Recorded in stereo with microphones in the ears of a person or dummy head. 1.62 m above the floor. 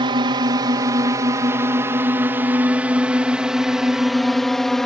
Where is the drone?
25° right (ahead or behind); by 4.9 s centre (ahead or behind).